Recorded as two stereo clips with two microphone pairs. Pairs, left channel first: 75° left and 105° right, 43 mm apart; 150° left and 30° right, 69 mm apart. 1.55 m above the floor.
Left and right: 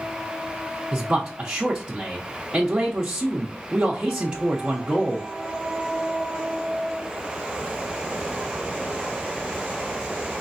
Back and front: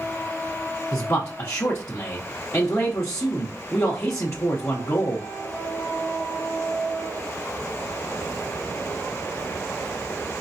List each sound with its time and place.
0.9 s a man speaking: 170° right, 0.7 m